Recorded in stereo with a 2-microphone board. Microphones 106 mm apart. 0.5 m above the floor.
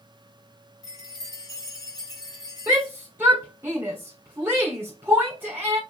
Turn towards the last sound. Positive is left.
turn(degrees=-20)  # may be behind; listen again after turning